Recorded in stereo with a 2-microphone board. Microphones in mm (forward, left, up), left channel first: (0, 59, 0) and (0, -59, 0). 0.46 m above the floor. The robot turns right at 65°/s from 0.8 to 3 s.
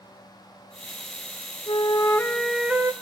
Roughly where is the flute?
Behind left.